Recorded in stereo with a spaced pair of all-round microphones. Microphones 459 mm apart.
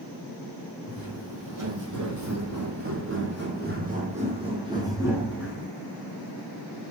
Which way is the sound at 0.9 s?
55° right (ahead or behind).